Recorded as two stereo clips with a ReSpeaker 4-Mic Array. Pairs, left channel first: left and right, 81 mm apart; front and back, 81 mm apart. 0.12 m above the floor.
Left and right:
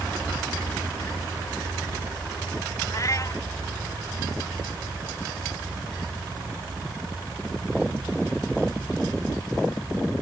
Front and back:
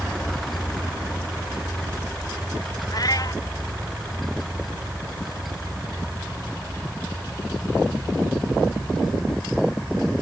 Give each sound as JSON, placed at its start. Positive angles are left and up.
{"t": 2.9, "sound": "a cat meowing", "azimuth_deg": 40}